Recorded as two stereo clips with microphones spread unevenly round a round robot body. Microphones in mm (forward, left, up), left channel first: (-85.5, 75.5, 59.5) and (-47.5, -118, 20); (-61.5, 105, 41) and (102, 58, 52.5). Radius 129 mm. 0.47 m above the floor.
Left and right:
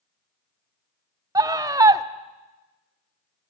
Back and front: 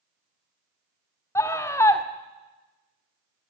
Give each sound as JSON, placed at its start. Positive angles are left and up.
{"t": 1.4, "sound": "a scream", "azimuth_deg": -130, "distance_m": 1.5}